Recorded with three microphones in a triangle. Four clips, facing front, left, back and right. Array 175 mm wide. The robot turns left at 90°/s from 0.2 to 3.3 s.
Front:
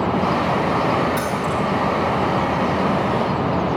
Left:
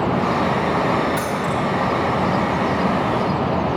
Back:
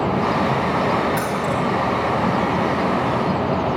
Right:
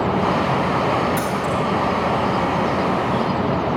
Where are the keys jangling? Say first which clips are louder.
Even, even; 155° right, 6 m; by 1.6 s 160° left, 6 m.